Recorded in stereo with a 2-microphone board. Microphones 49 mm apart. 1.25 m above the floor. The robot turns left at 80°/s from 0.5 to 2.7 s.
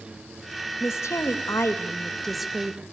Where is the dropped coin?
No dropped coin in this recording.